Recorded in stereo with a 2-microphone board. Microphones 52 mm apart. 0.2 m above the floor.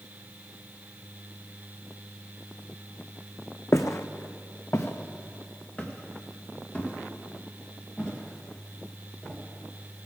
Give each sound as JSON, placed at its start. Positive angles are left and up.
{"t": 3.7, "sound": "footsteps", "side_deg": 65, "distance_m": 0.6}